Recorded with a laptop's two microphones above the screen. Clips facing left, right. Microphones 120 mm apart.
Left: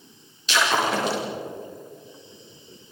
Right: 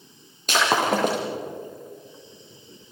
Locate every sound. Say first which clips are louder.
0.5 s breaking glass: right 1 dB; 50° right (ahead or behind), 9 m